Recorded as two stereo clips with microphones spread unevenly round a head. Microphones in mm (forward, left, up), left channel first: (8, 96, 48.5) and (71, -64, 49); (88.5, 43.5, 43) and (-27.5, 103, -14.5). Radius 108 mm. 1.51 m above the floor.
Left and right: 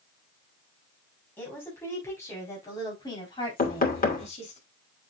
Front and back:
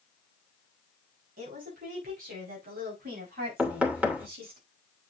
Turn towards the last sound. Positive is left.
turn(degrees=70)